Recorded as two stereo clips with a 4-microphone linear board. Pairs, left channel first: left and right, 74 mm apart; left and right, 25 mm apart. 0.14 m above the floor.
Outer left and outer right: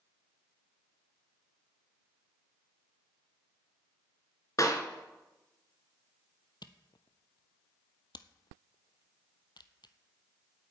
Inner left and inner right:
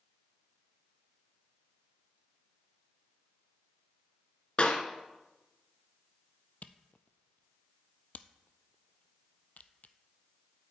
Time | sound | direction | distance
4.6 | a clap | 50° left (ahead or behind) | 1.7 m
6.6 | a camera shutter | 80° left | 0.7 m